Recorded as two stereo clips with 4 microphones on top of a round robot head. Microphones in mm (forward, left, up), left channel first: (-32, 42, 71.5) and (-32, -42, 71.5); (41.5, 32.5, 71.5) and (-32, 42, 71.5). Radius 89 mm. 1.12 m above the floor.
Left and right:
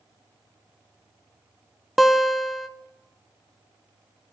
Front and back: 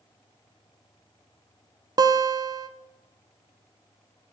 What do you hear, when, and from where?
2.0 s a guitar: straight behind, 0.7 m